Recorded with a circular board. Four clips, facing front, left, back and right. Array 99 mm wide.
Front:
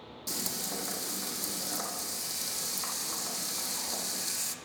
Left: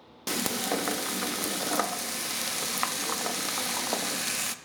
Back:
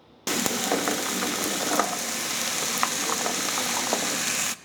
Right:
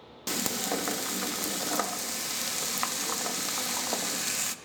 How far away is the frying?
About 0.6 m.